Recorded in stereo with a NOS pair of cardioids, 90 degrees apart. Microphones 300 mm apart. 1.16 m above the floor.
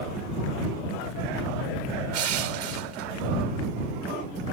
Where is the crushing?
70° right.